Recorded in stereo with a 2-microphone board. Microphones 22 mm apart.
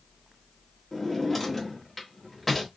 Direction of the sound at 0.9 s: 10° left (ahead or behind).